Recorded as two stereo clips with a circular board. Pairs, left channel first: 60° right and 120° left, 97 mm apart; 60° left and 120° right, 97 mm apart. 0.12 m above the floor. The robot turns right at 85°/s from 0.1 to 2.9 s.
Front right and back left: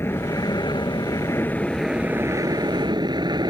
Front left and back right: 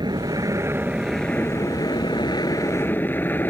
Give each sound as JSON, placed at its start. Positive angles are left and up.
{"t": 0.0, "sound": "an aircraft", "azimuth_deg": -115}